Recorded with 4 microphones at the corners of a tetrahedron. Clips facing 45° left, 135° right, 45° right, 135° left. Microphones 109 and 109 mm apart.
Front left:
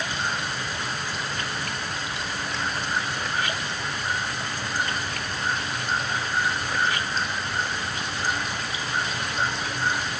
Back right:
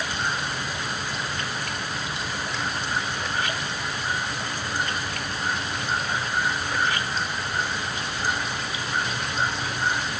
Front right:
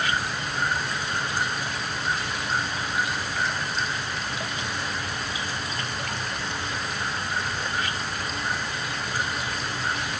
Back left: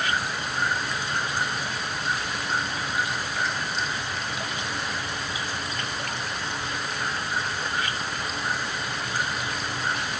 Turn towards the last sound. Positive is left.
No sound to turn to.